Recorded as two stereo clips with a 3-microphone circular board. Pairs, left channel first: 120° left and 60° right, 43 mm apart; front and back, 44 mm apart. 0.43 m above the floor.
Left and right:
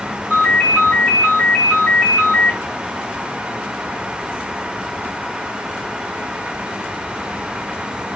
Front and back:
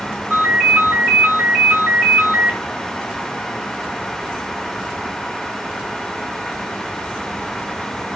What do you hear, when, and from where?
0.3 s a ringtone: 145° left, 1.4 m